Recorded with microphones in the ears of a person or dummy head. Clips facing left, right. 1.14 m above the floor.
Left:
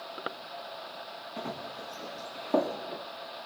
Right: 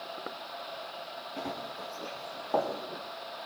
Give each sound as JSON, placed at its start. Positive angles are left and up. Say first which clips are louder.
{"t": 1.4, "sound": "running footsteps", "louder": "even", "side_deg": 5, "distance_m": 4.5}